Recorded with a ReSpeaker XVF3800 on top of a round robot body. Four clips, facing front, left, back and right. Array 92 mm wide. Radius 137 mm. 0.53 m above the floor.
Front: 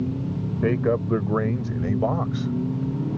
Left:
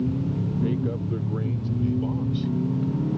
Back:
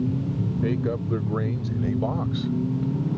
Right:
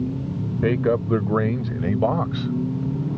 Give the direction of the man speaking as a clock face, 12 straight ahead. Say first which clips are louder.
Right 10 dB, front 6 dB; 2 o'clock.